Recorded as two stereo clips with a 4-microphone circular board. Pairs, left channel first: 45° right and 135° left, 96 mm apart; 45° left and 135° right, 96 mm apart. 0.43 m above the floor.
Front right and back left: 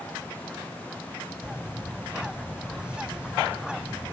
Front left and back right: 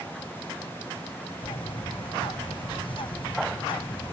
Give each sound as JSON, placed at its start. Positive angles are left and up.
{"t": 1.4, "sound": "a bird", "azimuth_deg": 55}